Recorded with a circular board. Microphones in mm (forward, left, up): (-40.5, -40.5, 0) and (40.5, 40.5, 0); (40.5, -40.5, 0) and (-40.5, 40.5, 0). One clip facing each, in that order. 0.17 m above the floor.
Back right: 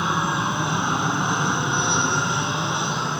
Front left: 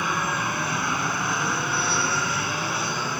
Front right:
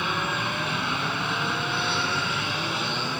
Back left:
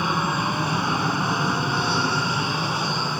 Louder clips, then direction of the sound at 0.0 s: Back right 3 dB, back left 4 dB; 165° left.